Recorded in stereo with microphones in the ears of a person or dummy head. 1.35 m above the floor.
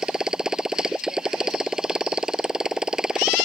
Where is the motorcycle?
Centre (ahead or behind).